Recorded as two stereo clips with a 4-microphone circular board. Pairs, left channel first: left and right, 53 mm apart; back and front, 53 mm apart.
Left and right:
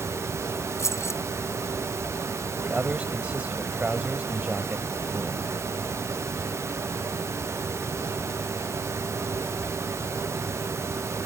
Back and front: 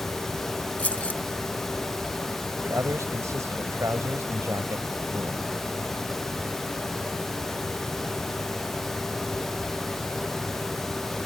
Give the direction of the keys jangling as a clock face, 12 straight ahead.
8 o'clock.